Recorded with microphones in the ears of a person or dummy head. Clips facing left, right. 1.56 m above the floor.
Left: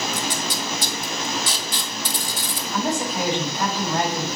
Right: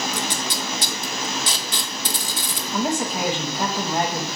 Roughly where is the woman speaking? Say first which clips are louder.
Right 1 dB; centre.